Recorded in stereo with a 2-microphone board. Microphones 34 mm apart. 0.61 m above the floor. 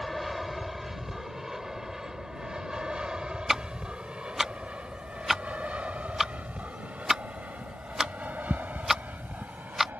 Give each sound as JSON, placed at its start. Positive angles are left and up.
{"t": 0.0, "sound": "an aircraft", "side_deg": -5}
{"t": 3.5, "sound": "ticking", "side_deg": -10}